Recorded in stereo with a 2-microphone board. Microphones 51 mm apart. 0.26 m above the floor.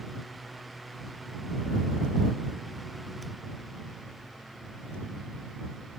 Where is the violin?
No violin in this recording.